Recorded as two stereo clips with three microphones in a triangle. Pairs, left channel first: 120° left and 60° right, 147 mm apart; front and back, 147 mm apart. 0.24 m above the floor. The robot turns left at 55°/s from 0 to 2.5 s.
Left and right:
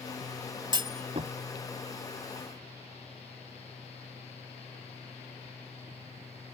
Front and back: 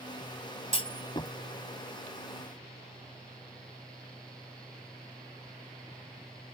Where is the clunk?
20° right; by 1.3 s 50° right.